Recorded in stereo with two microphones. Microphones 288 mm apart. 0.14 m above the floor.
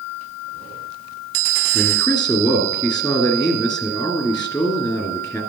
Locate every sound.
1.7 s a man speaking: 15° left (ahead or behind), 2 m